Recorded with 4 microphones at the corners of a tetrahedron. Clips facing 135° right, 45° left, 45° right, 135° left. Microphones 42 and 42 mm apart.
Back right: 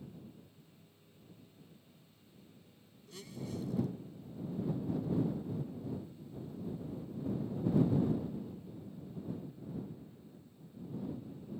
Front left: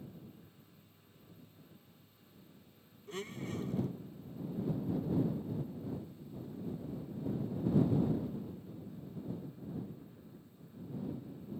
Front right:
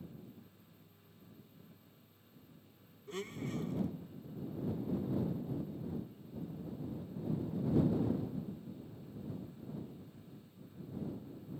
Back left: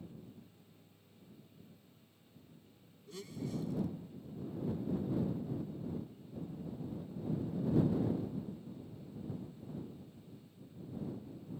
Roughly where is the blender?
Ahead.